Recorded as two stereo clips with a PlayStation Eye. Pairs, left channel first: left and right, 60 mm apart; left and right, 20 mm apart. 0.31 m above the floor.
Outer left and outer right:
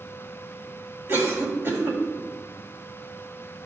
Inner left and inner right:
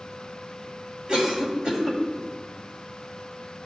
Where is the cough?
45° right (ahead or behind), 2 m.